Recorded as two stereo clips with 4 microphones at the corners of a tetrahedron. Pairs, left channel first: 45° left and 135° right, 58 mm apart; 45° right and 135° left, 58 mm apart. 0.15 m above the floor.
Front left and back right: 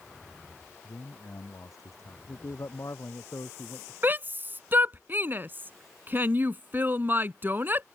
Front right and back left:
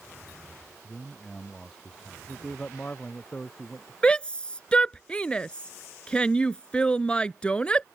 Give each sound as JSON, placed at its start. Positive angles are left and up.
{"t": 0.8, "sound": "a man speaking", "azimuth_deg": 25}
{"t": 2.3, "sound": "a man speaking", "azimuth_deg": 20}
{"t": 4.0, "sound": "a shout", "azimuth_deg": -110}